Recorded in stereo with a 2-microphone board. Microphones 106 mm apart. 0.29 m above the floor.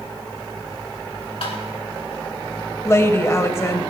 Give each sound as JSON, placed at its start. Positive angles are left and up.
{"t": 1.4, "sound": "tapping", "side_deg": 65, "distance_m": 3.0}
{"t": 2.9, "sound": "a woman speaking", "side_deg": 30, "distance_m": 1.1}